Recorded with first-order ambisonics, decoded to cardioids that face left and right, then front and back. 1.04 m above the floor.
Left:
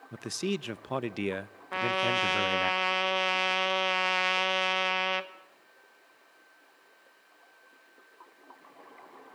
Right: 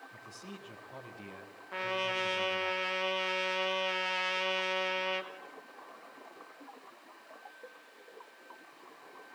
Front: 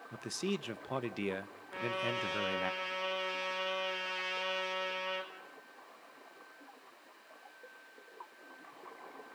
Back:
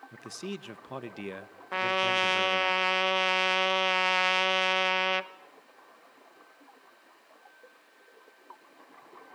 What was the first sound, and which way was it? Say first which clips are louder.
A man speaking: left 14 dB, front 3 dB; 80° left.